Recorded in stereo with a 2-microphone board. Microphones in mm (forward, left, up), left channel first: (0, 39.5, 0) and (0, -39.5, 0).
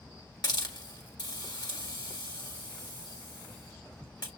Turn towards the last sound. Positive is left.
turn(degrees=60)  # may be behind; listen again after turning